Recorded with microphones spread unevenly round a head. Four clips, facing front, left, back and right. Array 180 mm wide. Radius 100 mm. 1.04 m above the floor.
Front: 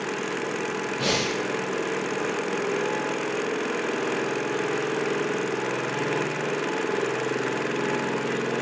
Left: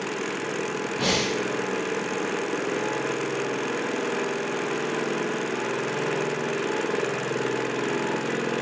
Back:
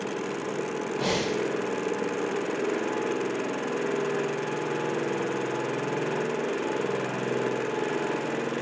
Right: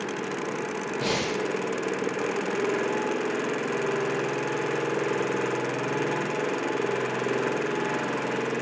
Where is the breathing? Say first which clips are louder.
Left 2 dB, even; 75° left, 2.0 m.